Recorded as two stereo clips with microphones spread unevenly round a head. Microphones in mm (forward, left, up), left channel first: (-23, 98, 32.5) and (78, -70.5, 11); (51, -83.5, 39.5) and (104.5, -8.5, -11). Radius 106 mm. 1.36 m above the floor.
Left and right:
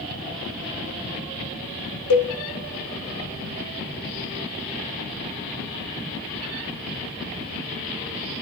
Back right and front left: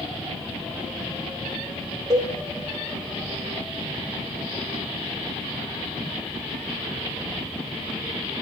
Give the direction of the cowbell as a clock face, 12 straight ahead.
8 o'clock.